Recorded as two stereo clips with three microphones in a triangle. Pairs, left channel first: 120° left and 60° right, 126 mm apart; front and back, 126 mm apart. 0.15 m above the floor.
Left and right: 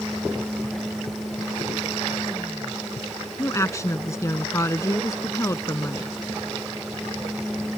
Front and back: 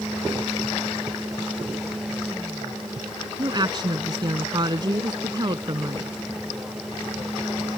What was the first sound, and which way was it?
A woman speaking, 165° left.